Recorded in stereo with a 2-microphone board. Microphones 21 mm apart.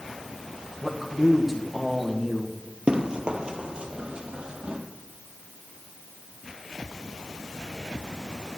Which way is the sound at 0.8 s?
10° right (ahead or behind).